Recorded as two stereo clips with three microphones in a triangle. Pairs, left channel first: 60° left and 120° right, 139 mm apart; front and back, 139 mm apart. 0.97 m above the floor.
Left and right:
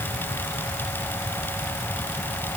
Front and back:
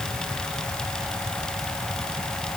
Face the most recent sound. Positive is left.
No sound to turn to.